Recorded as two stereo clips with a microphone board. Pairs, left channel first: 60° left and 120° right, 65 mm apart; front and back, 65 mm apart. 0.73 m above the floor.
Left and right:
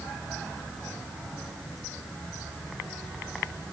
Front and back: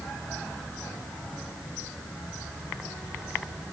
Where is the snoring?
I don't hear snoring.